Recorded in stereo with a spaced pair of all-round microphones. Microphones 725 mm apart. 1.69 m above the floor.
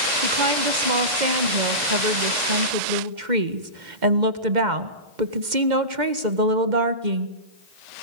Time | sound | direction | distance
0.2 | a woman speaking | 80° right | 1.8 m